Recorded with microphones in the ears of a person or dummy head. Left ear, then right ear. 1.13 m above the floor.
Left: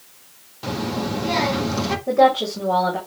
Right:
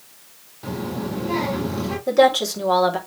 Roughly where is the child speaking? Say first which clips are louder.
Left 3 dB; left.